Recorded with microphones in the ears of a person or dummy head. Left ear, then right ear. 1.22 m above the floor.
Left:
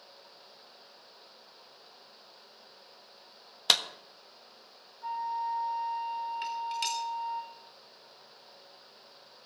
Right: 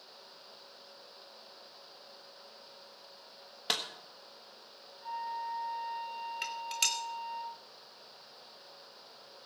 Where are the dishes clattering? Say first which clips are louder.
Right 3 dB; 15° right (ahead or behind), 0.9 m.